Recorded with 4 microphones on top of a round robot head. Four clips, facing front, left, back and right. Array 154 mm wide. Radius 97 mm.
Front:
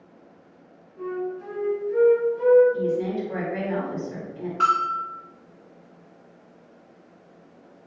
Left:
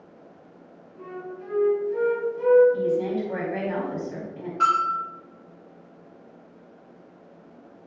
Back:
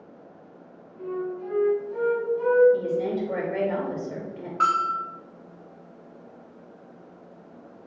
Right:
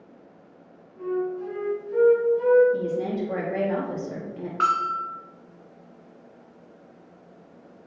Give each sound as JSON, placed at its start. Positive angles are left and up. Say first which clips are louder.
{"t": 1.0, "sound": "a flute", "louder": "right 10 dB, front 1 dB", "azimuth_deg": -45, "distance_m": 4.0}
{"t": 2.7, "sound": "a woman speaking", "louder": "left 2 dB, front 1 dB", "azimuth_deg": -120, "distance_m": 2.5}
{"t": 4.6, "sound": "a bell", "louder": "left 2 dB, front 1 dB", "azimuth_deg": -75, "distance_m": 3.0}